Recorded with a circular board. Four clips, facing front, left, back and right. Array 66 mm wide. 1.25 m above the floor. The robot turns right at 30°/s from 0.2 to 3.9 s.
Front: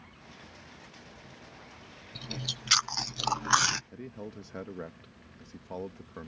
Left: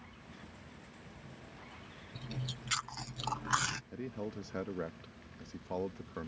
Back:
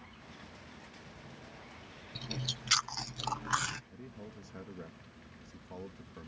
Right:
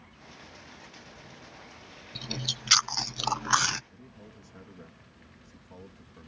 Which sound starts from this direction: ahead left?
A man speaking, at 3.9 s.